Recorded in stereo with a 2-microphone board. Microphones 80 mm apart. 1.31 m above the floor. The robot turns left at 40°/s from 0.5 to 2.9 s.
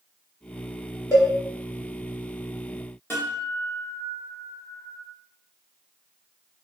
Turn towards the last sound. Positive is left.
turn(degrees=30)  # may be behind; listen again after turning